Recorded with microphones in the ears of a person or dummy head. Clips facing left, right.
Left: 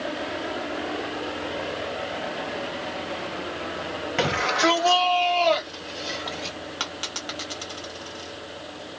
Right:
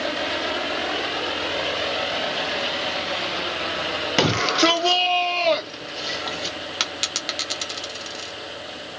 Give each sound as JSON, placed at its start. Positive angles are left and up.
{"t": 4.2, "sound": "a shout", "side_deg": -55, "distance_m": 0.9}
{"t": 6.8, "sound": "a dropped coin", "side_deg": -25, "distance_m": 1.0}